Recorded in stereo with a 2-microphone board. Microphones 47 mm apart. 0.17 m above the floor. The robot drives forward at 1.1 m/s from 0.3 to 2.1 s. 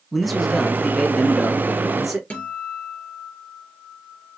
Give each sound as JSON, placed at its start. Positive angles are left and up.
{"t": 0.1, "sound": "a man speaking", "side_deg": 0, "distance_m": 1.3}
{"t": 2.3, "sound": "a guitar", "side_deg": 25, "distance_m": 3.5}